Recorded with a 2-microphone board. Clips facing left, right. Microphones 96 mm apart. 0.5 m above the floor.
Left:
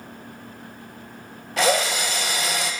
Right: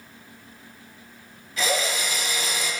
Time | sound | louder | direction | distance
1.6 | a drill | left 5 dB | 65° left (ahead or behind) | 0.9 m